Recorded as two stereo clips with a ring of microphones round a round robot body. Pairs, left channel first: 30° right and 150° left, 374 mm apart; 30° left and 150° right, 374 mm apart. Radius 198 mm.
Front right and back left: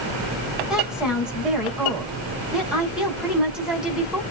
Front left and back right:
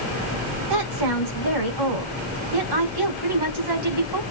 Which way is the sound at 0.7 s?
120° right.